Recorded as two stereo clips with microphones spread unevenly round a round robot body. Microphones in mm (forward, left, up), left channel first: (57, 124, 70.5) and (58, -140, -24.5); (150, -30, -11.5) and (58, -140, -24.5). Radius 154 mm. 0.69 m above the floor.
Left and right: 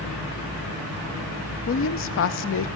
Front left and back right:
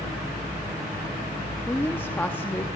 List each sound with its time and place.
1.7 s a woman speaking: 130° left, 0.6 m